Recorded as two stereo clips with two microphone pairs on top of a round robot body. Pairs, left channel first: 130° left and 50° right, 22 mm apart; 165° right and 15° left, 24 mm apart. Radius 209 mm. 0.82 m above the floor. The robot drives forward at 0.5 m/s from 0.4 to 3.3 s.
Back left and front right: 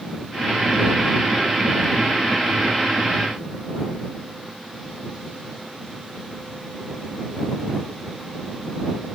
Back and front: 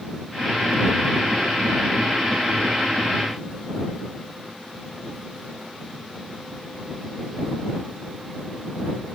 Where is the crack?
No crack in this recording.